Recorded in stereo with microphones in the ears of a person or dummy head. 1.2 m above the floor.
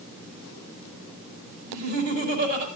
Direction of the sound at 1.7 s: 55° right (ahead or behind).